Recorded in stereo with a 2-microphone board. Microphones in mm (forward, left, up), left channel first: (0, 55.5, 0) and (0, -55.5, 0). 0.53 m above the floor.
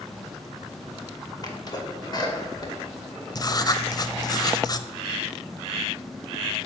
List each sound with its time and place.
1.4 s a sneeze: 35° left (ahead or behind), 1.9 m
3.4 s writing: 35° left (ahead or behind), 0.5 m